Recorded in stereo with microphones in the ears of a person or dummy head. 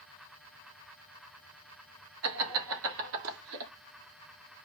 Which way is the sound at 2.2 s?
80° right.